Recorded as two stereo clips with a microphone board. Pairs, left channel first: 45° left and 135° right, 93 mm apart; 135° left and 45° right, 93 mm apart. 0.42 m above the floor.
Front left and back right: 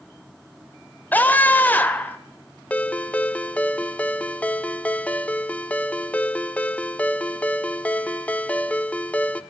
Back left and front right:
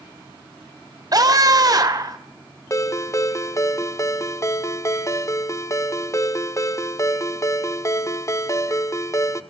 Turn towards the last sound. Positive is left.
turn(degrees=110)